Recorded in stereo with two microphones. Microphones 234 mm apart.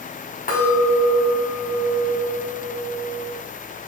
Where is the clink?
40° left (ahead or behind), 1.9 m.